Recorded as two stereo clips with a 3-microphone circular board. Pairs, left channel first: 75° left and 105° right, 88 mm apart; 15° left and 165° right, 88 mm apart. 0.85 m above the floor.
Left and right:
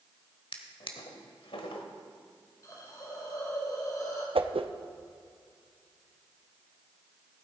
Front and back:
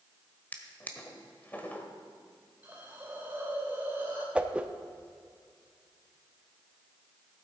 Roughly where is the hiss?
Behind left.